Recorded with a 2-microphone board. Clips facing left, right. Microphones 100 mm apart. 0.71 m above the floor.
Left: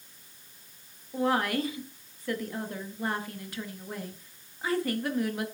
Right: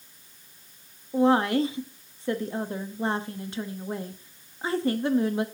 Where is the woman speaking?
25° right (ahead or behind), 0.9 m.